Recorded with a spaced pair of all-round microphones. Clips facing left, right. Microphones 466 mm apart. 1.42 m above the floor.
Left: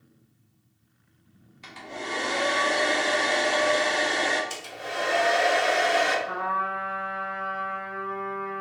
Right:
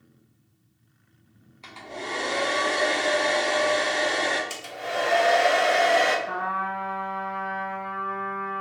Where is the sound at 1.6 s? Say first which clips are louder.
Even; 35° left (ahead or behind), 0.8 m.